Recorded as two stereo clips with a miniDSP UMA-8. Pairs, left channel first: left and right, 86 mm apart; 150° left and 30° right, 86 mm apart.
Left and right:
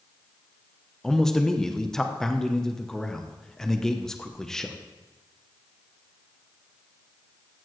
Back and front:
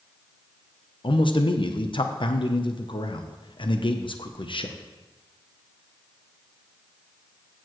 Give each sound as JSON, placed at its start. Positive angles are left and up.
{"t": 1.0, "sound": "a man speaking", "azimuth_deg": 175, "distance_m": 0.8}